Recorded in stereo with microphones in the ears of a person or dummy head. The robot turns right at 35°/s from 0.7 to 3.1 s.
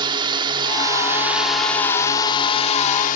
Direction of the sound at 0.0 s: 30° right.